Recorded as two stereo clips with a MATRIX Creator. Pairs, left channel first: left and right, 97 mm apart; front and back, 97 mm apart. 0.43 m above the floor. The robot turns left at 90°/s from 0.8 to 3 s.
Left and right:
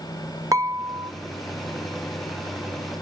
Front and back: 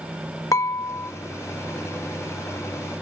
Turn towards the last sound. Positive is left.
turn(degrees=115)